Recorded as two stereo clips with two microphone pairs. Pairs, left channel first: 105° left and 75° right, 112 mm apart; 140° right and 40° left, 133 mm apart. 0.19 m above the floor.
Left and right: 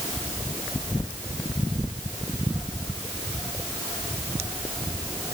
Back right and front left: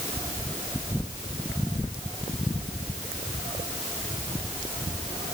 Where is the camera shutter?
No camera shutter in this recording.